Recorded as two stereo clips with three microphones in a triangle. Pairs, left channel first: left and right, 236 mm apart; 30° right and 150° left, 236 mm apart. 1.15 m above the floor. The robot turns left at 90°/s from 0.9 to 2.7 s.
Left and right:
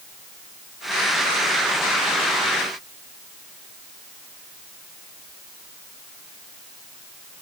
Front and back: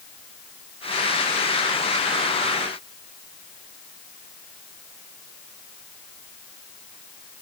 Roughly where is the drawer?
I don't hear a drawer.